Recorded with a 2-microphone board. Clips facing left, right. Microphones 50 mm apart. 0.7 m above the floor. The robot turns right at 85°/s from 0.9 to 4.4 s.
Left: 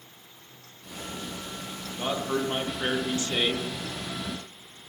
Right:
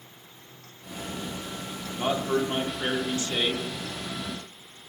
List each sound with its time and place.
2.0 s a man speaking: 10° right (ahead or behind), 0.9 m; by 3.6 s 25° left (ahead or behind), 0.9 m